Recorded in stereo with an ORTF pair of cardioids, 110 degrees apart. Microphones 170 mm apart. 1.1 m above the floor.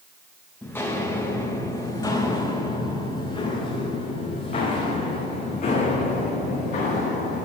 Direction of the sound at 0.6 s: 10° left.